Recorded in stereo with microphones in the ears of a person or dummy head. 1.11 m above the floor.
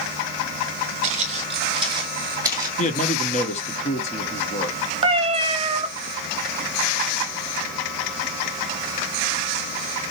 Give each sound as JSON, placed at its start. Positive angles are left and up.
{"t": 1.0, "sound": "footsteps", "side_deg": -40, "distance_m": 2.0}
{"t": 2.8, "sound": "a man speaking", "side_deg": 30, "distance_m": 1.1}
{"t": 5.0, "sound": "a cat meowing", "side_deg": -30, "distance_m": 1.0}